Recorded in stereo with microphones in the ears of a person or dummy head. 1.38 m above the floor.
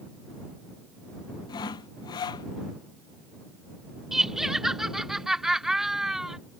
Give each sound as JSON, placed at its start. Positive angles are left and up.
{"t": 1.5, "sound": "sawing", "side_deg": 25}
{"t": 4.1, "sound": "laughter", "side_deg": 0}